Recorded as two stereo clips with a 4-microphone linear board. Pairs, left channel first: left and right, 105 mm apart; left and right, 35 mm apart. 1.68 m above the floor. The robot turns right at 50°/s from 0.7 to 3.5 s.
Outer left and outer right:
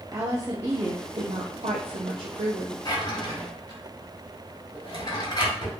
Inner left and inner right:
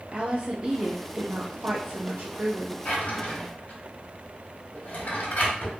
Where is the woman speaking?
150° right, 0.8 m; by 2.8 s 45° right, 0.8 m.